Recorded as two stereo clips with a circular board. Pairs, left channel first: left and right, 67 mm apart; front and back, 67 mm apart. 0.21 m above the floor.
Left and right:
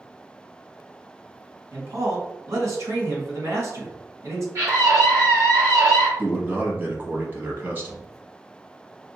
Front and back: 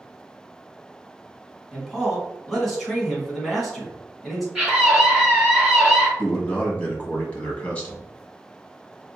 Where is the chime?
I don't hear a chime.